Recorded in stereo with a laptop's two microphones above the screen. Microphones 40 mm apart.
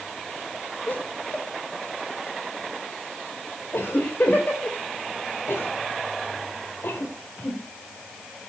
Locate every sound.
0.9 s laughter: 50° left (ahead or behind), 4 m
3.7 s a cough: 70° left (ahead or behind), 3 m